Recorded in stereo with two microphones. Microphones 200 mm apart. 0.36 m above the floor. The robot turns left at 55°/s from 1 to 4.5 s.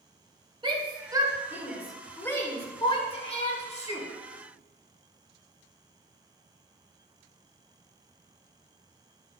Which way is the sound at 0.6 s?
25° right (ahead or behind).